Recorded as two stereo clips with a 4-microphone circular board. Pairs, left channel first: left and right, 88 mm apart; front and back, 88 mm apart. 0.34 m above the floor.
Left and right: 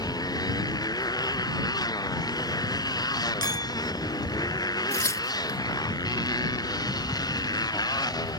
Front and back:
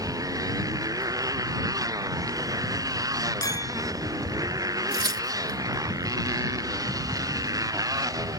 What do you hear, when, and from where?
0.0 s a motorcycle: 130° left
3.4 s a clink: 50° left
4.9 s tearing paper: 140° left